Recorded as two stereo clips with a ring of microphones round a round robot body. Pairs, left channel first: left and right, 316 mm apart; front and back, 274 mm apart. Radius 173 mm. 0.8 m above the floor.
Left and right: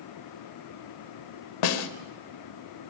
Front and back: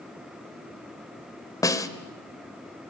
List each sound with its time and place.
1.6 s a snare drum: 80° left, 2.0 m